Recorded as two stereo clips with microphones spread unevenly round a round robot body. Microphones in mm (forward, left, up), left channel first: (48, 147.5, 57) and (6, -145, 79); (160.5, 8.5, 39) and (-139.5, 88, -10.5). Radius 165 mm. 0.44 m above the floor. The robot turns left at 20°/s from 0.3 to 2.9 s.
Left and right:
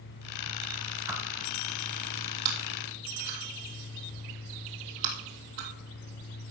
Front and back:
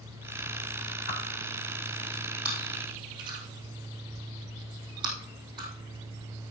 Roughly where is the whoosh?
Ahead.